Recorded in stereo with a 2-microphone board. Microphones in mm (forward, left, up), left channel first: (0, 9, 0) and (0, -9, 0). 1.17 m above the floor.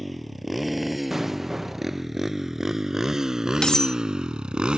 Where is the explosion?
15° right (ahead or behind).